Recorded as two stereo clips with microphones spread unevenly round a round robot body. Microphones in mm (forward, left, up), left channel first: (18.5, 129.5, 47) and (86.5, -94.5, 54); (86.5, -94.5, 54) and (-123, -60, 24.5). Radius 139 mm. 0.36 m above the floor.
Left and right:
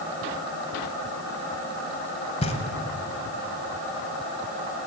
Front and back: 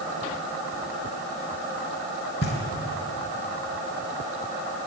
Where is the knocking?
45° left, 1.4 m.